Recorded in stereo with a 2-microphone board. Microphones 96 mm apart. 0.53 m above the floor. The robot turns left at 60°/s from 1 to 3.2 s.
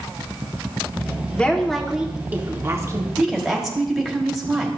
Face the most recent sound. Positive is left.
turn(degrees=0)  # may be behind; listen again after turning